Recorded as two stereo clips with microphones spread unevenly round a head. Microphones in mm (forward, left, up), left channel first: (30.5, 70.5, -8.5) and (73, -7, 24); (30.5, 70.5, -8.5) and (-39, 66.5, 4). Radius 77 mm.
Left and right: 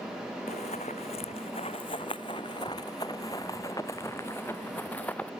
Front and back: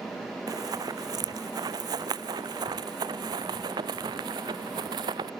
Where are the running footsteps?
170° left; by 5.3 s 155° right.